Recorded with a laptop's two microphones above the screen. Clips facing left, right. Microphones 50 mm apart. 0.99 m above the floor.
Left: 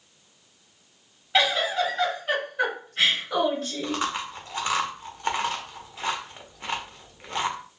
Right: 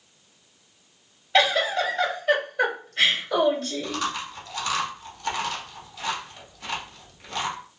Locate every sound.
1.3 s a giggle: centre (ahead or behind), 1.7 m
3.8 s chewing: 30° left (ahead or behind), 0.7 m